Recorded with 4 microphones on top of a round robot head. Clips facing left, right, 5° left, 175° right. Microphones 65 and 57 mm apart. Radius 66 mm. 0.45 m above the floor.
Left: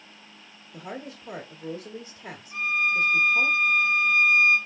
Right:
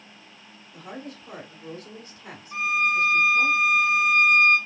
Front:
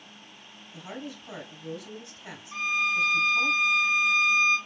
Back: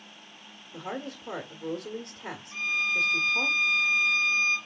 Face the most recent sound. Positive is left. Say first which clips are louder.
# right 2 dB, front 2 dB
turn(degrees=-75)